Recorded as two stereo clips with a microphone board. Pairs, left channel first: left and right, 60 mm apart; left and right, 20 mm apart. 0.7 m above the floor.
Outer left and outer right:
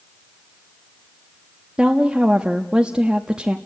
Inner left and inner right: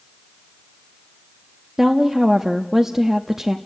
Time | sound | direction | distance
1.8 | a woman speaking | 15° right (ahead or behind) | 0.9 m